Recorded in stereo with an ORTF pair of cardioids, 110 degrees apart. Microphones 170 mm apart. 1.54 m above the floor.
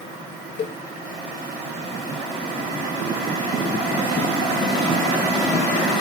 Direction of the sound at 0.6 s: 40° left.